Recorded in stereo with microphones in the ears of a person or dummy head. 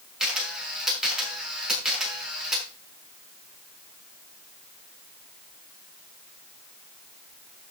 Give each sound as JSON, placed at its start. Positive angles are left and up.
{"t": 0.2, "sound": "a camera shutter", "side_deg": 0, "distance_m": 6.0}